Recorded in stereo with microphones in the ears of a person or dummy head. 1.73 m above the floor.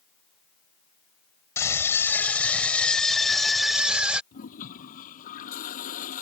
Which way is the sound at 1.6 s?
10° left (ahead or behind).